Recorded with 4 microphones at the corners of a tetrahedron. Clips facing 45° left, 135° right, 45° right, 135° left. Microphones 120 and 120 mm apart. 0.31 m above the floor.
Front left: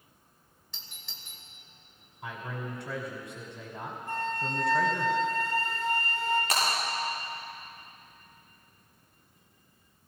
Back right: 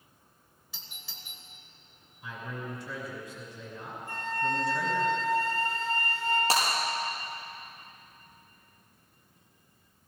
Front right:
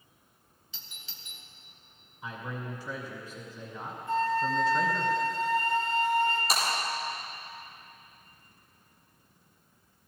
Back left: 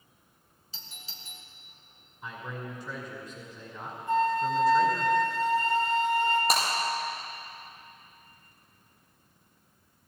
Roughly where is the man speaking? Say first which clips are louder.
Front left 1 dB, front right 1 dB; ahead left.